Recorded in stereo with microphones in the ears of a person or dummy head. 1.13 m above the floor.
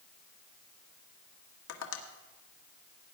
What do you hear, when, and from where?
1.7 s tapping: 85° left, 1.5 m